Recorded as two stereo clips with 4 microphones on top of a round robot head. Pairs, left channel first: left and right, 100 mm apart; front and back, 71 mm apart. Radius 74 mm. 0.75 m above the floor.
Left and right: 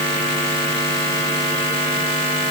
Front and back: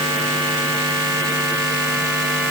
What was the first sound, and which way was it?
Only background noise.